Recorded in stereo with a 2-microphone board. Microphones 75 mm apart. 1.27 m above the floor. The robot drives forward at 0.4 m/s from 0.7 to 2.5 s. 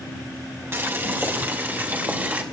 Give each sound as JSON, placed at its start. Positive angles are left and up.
{"t": 0.7, "sound": "boiling", "side_deg": -35, "distance_m": 1.8}